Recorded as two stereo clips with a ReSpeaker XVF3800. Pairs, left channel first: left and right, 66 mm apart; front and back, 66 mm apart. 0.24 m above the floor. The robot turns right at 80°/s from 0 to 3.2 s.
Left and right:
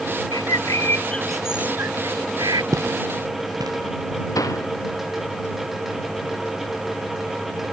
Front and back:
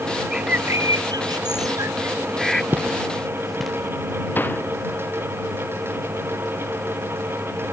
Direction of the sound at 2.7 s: 120° right.